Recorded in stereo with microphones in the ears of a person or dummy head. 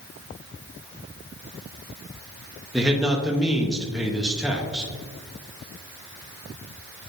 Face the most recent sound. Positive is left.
turn(degrees=-5)  # may be behind; listen again after turning